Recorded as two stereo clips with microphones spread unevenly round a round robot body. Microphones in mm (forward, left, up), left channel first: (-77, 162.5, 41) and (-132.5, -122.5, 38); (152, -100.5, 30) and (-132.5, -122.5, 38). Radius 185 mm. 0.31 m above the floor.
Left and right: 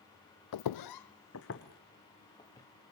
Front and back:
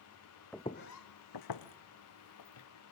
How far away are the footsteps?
About 0.9 m.